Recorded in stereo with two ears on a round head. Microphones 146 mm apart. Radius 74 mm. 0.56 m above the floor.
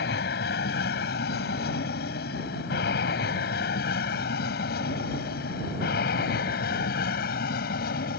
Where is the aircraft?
70° left (ahead or behind); by 8.2 s 65° left (ahead or behind).